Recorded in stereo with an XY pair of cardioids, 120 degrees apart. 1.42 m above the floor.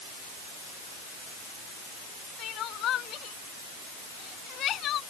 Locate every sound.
2.4 s crying: 60° left